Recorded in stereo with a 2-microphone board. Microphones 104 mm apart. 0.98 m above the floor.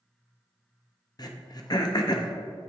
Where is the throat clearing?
40° left (ahead or behind), 0.6 m.